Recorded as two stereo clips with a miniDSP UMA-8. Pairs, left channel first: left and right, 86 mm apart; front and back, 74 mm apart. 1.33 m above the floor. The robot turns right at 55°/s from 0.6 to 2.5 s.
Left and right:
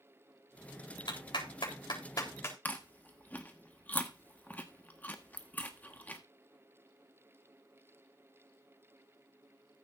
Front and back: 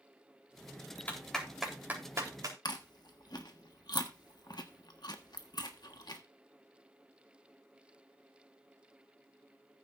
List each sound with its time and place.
1.1 s a clap: 70° left, 4 m; by 2.5 s 150° left, 4 m
2.6 s chewing: 20° left, 1.4 m